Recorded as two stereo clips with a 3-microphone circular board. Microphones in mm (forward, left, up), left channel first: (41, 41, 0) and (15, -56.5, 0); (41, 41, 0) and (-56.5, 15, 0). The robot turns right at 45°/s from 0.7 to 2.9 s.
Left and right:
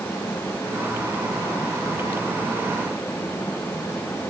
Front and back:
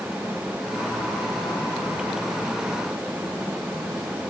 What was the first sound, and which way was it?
Only background noise.